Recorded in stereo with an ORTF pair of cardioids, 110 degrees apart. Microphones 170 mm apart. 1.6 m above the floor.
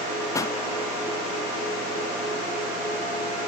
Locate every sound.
0.3 s a pop: 20° left, 0.7 m